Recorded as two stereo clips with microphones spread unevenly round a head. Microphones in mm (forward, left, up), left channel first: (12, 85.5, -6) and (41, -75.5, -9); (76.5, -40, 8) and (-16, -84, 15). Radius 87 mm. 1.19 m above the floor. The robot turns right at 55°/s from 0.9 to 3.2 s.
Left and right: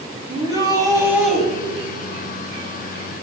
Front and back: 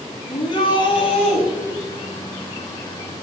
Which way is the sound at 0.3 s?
15° right.